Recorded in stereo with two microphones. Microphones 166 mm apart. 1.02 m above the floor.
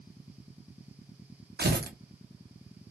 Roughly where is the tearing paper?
Right.